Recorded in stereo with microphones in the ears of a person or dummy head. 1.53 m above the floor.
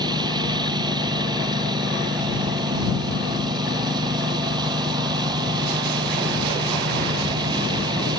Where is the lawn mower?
20° right (ahead or behind).